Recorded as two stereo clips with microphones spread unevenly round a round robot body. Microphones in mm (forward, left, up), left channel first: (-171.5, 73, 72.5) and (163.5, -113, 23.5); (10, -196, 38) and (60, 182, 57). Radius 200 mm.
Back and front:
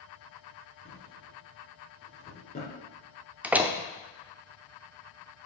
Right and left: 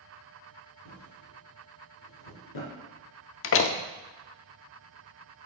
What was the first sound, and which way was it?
A drawer, 140° right.